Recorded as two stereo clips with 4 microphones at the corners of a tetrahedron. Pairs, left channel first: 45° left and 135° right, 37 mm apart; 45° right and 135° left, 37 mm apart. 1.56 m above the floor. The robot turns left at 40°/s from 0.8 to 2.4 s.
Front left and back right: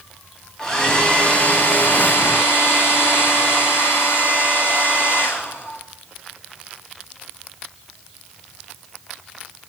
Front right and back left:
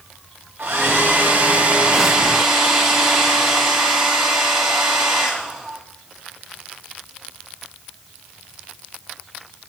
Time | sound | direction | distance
0.6 | a hair dryer | 120° left | 7.5 m